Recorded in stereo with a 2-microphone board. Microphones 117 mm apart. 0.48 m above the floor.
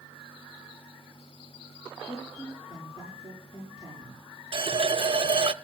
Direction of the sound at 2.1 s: 60° left (ahead or behind).